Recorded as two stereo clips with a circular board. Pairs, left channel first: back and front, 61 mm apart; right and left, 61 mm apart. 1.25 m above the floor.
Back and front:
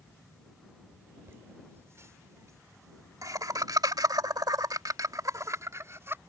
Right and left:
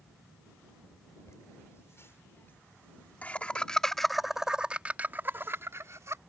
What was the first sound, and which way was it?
Laughter, 50° right.